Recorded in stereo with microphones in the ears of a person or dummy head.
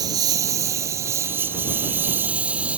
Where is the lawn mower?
20° right (ahead or behind); by 2.8 s 5° right (ahead or behind).